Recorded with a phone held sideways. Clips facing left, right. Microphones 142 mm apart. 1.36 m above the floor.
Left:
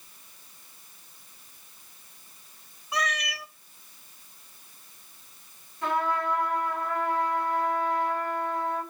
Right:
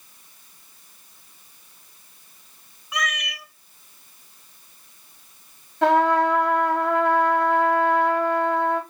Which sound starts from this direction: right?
A trumpet, at 5.8 s.